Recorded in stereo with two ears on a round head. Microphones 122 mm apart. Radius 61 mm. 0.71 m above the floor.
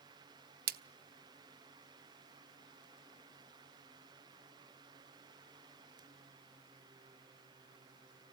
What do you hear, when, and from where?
0.7 s a splash: 75° right (ahead or behind), 0.6 m